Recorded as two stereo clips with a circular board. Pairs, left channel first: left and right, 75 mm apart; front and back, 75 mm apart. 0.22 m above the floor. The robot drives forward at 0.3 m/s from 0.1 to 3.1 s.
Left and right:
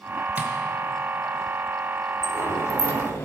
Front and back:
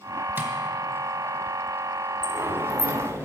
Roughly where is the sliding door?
Behind left.